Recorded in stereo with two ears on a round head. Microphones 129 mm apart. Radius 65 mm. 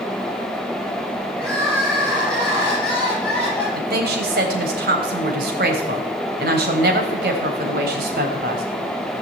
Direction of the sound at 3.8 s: 70° right (ahead or behind).